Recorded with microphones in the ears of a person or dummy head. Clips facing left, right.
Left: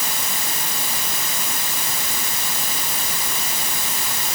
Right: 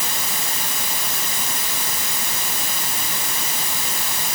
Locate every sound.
Only background noise.